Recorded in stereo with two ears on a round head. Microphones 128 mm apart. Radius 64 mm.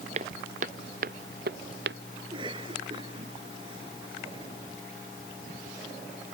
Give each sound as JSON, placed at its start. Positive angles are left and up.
{"t": 0.1, "sound": "footsteps", "side_deg": -45}
{"t": 2.2, "sound": "a cough", "side_deg": -35}